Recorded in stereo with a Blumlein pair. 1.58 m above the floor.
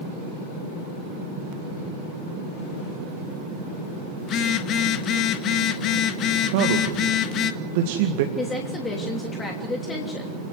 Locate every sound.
4.2 s a phone buzzing: 30° left, 1.8 m
6.5 s a man speaking: 50° right, 2.0 m
8.4 s a woman speaking: 15° left, 3 m